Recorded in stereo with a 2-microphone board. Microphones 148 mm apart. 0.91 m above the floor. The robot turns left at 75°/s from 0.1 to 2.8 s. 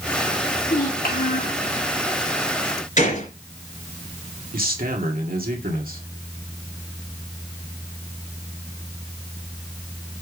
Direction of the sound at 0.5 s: 140° left.